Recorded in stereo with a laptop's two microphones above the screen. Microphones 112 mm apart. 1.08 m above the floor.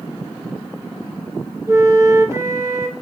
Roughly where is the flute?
Right.